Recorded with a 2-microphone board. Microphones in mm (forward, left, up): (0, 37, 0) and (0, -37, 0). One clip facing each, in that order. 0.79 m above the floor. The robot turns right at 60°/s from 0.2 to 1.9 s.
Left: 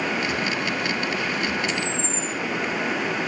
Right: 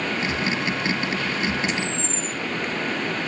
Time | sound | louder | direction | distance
1.7 | a camera shutter | even | 5° right (ahead or behind) | 2.5 m